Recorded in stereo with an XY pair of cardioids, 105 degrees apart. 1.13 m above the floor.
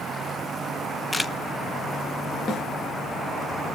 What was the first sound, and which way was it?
A camera shutter, 15° left.